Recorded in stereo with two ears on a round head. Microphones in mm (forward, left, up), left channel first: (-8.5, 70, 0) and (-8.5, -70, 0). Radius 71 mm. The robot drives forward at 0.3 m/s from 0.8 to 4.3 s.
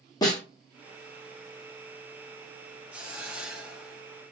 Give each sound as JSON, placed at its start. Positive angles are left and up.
{"t": 0.2, "sound": "a snare drum", "side_deg": 25, "distance_m": 1.3}
{"t": 2.9, "sound": "a hiss", "side_deg": -10, "distance_m": 1.4}